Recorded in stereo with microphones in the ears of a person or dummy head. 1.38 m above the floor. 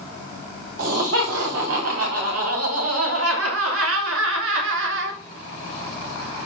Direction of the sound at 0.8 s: 65° right (ahead or behind).